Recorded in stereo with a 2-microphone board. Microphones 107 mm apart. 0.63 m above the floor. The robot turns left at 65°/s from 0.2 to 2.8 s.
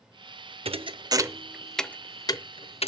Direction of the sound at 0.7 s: 65° right (ahead or behind).